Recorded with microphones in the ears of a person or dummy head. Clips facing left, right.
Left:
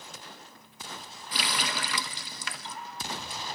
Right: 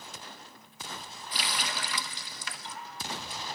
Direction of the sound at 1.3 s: 55° left (ahead or behind).